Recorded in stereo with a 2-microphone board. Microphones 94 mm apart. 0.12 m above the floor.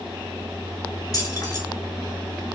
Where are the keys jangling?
40° left (ahead or behind), 1.1 m.